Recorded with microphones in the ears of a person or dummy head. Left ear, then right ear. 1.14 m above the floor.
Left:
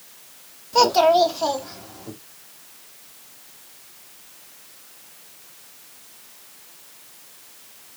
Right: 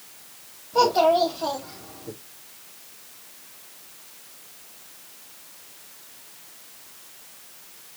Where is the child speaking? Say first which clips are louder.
Left 3 dB; 75° left (ahead or behind), 1.1 m; by 2.1 s 85° left, 1.8 m.